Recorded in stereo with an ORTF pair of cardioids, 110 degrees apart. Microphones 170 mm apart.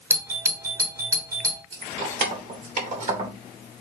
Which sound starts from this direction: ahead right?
Keys jangling, at 1.7 s.